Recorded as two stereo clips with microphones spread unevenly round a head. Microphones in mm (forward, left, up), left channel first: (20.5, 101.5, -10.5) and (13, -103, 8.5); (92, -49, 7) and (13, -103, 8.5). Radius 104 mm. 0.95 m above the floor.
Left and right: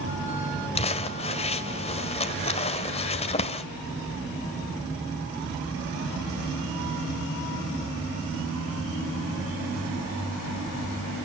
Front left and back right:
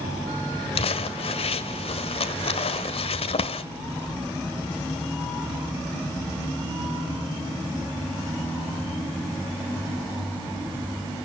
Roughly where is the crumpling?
Ahead left.